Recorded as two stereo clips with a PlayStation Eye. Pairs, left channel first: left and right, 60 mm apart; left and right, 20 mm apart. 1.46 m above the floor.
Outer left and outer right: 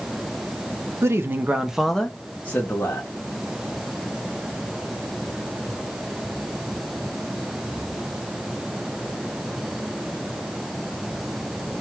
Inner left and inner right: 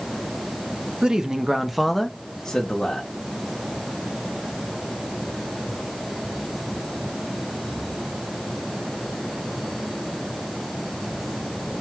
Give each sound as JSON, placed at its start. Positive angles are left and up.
{"t": 1.0, "sound": "a man speaking", "side_deg": -50, "distance_m": 0.6}